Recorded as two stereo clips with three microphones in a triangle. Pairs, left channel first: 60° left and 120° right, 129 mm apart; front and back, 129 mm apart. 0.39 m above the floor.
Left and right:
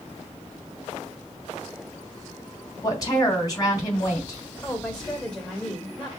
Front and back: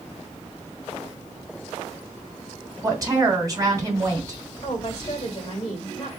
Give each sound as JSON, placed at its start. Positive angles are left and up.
{"t": 2.8, "sound": "a woman speaking", "azimuth_deg": 120, "distance_m": 2.5}
{"t": 4.6, "sound": "a woman speaking", "azimuth_deg": -20, "distance_m": 1.6}